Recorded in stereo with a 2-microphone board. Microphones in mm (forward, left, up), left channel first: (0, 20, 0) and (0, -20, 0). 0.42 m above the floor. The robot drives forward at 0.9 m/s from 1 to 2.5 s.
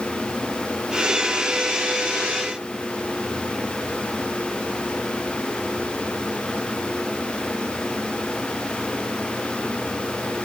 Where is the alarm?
No alarm in this recording.